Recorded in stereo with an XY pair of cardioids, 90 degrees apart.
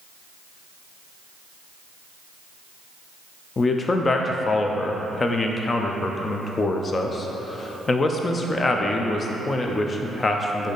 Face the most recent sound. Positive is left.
turn(degrees=35)